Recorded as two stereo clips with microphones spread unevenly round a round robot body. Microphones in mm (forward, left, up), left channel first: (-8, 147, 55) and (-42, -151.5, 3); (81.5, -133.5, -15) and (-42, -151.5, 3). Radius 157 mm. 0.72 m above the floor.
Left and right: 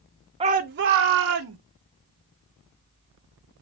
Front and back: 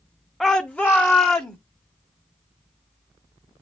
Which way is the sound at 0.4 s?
65° right.